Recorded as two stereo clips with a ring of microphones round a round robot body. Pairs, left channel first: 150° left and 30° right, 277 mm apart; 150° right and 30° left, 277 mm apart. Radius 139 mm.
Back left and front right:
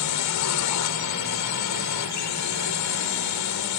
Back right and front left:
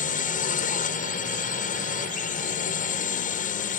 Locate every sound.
0.0 s a drone: 150° left